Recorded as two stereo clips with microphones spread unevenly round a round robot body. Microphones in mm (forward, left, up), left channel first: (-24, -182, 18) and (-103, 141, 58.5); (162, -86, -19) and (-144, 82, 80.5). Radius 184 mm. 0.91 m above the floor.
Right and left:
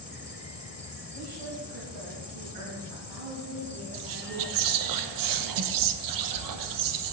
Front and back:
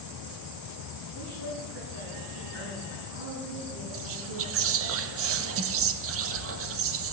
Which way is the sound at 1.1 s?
115° left.